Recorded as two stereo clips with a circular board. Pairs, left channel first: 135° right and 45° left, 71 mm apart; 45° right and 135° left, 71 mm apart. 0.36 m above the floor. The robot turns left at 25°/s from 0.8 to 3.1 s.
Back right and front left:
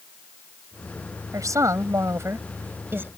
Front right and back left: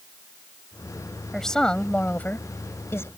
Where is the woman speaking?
40° left; by 3.1 s 5° right.